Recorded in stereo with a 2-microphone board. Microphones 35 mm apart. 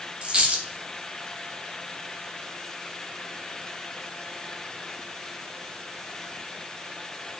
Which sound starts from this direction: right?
A dropped coin, at 0.2 s.